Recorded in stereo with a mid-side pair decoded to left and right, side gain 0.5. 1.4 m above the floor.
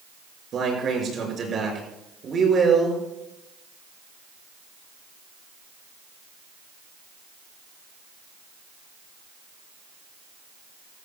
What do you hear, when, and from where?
0.5 s a man speaking: 50° right, 6 m; by 3.0 s 35° right, 6 m